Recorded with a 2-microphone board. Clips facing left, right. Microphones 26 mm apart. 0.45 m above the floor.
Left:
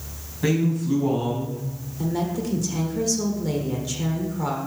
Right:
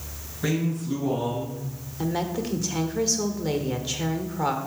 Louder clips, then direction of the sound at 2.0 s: Left 1 dB; 25° right (ahead or behind).